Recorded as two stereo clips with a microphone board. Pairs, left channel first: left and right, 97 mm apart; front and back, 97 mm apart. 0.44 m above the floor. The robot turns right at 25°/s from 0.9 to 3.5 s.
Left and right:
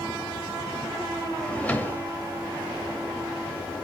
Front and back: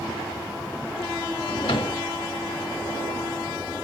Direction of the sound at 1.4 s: 10° left.